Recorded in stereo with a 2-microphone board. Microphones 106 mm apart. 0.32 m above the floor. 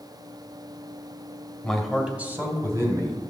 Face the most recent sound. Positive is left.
turn(degrees=-30)  # may be behind; listen again after turning